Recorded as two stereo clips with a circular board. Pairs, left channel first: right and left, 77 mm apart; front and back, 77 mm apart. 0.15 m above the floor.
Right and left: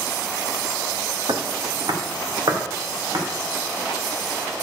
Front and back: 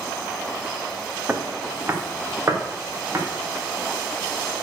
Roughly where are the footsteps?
Left.